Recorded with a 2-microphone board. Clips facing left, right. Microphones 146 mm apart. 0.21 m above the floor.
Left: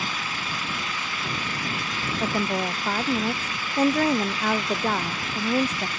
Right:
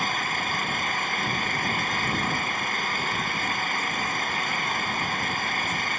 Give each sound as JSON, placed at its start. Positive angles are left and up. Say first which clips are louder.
{"t": 0.0, "sound": "an engine running", "louder": "right 3 dB", "side_deg": -55}
{"t": 2.2, "sound": "a woman speaking", "louder": "left 5 dB", "side_deg": 85}